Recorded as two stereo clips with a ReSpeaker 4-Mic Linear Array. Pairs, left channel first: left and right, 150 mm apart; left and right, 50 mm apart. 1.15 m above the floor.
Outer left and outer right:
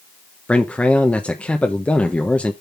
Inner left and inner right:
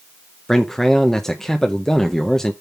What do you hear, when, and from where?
0.5 s a man speaking: 10° left (ahead or behind), 0.8 m